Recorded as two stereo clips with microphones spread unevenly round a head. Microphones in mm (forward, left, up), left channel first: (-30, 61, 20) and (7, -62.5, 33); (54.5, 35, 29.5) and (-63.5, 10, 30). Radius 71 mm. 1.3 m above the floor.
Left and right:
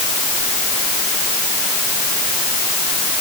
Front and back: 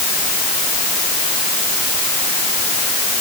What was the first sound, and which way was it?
Only background noise.